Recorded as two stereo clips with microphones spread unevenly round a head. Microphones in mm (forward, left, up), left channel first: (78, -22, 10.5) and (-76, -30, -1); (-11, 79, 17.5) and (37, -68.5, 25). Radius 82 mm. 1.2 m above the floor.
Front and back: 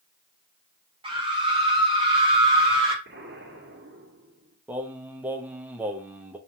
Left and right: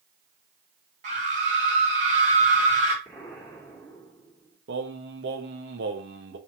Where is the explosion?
160° right, 3 m.